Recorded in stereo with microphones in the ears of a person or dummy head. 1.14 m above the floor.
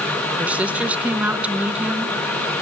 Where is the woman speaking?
10° right (ahead or behind), 0.7 m.